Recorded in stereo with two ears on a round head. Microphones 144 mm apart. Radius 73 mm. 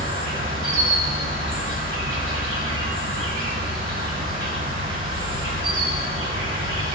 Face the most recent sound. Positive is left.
turn(degrees=-35)  # may be behind; listen again after turning